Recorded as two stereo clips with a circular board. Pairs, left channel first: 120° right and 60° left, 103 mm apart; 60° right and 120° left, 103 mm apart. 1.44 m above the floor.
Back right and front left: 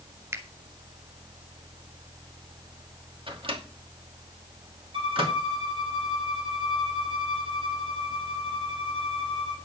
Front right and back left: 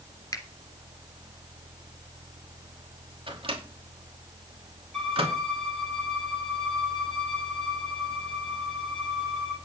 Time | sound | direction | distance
0.3 | a finger snap | straight ahead | 2 m
3.3 | a microwave | 90° left | 2.5 m
4.9 | a violin | 30° left | 4 m